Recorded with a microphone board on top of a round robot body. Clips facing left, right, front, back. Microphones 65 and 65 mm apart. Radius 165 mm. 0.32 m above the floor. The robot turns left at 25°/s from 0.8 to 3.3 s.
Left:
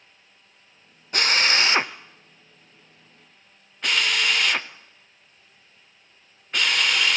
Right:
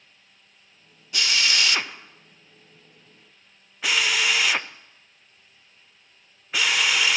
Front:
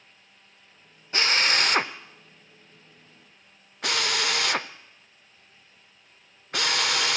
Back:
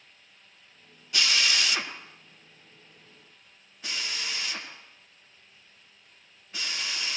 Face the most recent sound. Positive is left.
turn(degrees=-5)